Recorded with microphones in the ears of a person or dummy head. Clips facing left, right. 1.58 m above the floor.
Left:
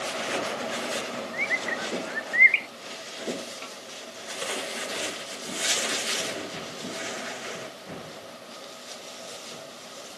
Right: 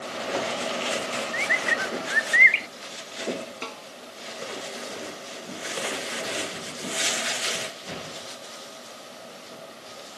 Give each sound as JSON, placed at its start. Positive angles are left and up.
{"t": 1.3, "sound": "a bird", "side_deg": -20}
{"t": 3.6, "sound": "a snare drum", "side_deg": -75}